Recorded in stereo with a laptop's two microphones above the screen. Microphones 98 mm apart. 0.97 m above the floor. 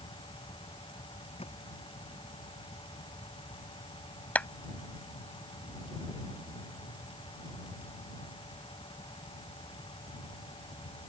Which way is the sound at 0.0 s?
60° left (ahead or behind).